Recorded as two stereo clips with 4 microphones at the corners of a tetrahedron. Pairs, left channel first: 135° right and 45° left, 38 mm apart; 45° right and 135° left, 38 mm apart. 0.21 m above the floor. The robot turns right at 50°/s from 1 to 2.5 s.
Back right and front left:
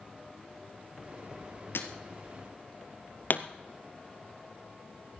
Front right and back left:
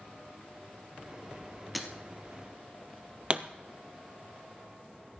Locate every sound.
1.8 s breaking glass: 135° right, 1.6 m; by 1.9 s 130° right, 1.6 m
3.3 s a pop: 165° right, 0.9 m